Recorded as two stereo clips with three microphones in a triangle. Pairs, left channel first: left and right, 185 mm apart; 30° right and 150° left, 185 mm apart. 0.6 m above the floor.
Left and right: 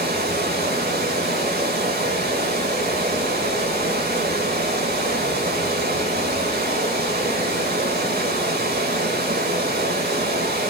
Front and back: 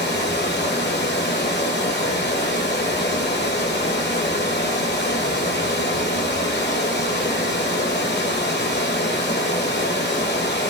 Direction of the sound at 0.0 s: 55° right.